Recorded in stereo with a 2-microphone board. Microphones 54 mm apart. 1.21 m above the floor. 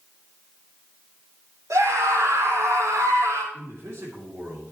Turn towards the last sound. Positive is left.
turn(degrees=-65)  # may be behind; listen again after turning